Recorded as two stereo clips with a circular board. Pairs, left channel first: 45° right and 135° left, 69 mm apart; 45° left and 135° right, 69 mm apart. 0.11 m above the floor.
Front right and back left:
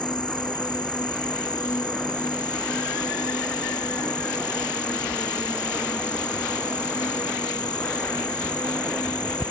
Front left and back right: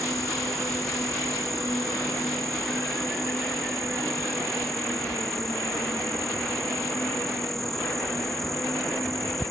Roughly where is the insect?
Ahead right.